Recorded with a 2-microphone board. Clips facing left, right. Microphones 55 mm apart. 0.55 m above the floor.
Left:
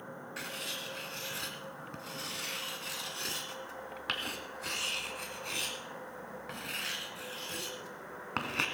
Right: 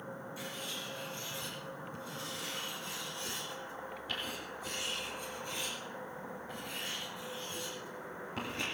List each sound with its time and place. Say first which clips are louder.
0.4 s writing: left 5 dB; 70° left (ahead or behind), 2.0 m